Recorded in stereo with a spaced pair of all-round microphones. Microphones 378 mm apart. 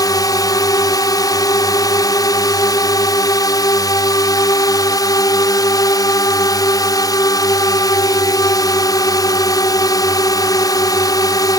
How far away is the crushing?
No crushing in this recording.